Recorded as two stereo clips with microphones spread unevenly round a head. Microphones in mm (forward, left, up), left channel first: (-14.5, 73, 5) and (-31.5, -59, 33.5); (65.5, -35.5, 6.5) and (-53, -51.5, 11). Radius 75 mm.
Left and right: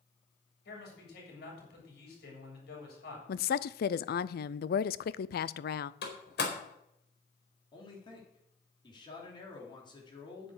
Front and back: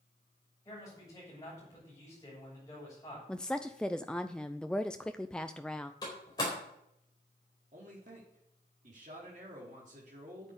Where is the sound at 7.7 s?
140° left, 4 m.